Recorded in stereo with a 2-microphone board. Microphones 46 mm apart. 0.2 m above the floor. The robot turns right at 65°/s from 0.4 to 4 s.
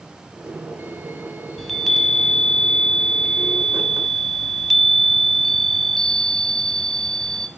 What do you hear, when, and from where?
1.6 s a chime: centre (ahead or behind), 0.6 m; by 7.5 s 10° left (ahead or behind), 0.6 m